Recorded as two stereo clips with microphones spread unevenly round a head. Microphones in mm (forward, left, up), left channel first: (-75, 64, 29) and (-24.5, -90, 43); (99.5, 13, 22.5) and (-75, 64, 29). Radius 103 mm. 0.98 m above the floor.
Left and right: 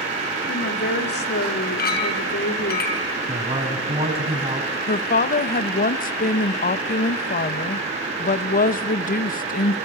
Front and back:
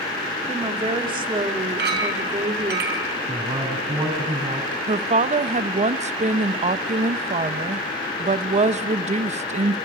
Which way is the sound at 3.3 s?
125° right.